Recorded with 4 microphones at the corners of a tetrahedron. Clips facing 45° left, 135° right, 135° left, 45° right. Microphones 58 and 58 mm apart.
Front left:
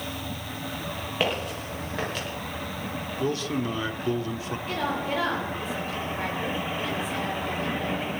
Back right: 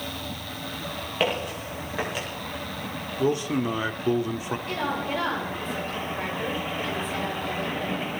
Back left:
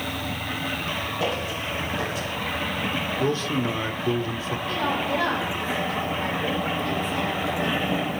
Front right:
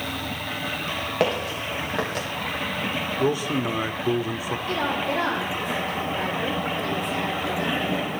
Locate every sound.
1.2 s footsteps: 45° right, 6 m; by 2.3 s 55° right, 6.5 m
3.2 s a man speaking: 95° right, 0.8 m
4.7 s a woman speaking: 40° right, 7.5 m